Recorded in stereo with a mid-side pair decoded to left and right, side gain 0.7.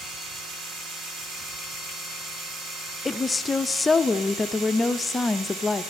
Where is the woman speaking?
15° left, 0.6 m.